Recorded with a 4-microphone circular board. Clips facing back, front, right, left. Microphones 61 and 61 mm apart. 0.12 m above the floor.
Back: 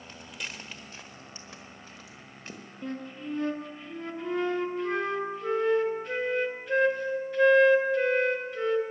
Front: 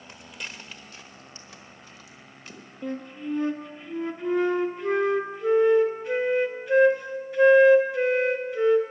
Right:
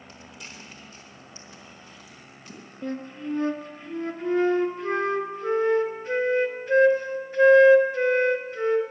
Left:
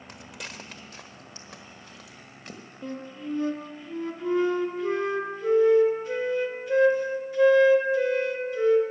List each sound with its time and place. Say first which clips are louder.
0.1 s footsteps: front 1 dB, left 4 dB; 80° left, 0.5 m; by 2.6 s 125° left, 1.8 m
2.8 s a flute: front 4 dB, right 3 dB; 85° right, 0.8 m